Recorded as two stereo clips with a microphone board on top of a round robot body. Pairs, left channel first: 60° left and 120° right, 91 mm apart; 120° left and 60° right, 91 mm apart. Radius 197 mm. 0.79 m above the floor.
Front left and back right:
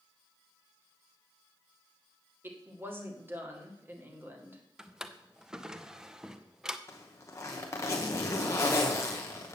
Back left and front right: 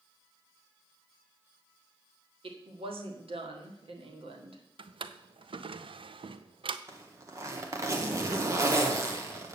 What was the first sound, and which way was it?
A woman speaking, 55° right.